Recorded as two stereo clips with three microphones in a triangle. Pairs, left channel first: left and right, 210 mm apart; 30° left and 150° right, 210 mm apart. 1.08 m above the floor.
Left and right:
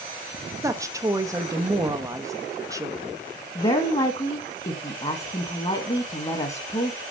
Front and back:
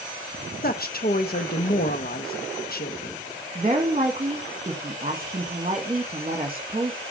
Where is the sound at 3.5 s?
150° left, 1.2 m.